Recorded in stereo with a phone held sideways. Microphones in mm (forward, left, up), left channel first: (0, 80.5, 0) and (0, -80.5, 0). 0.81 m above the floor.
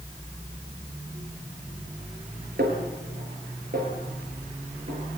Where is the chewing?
No chewing in this recording.